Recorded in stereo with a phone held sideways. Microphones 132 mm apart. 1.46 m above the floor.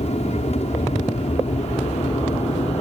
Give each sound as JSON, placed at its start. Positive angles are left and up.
{"t": 0.0, "sound": "an aircraft", "side_deg": 55}